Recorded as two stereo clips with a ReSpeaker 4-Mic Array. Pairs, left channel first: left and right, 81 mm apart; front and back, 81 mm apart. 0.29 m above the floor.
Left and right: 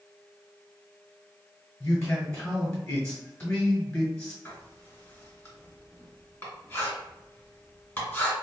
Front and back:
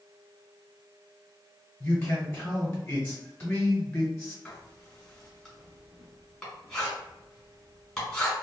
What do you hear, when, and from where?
1.8 s a man speaking: 40° left, 1.2 m
4.5 s writing: 70° left, 1.7 m